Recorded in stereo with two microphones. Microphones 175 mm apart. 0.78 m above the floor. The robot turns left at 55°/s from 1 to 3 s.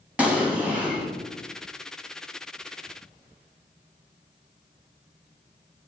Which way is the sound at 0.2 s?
5° right (ahead or behind).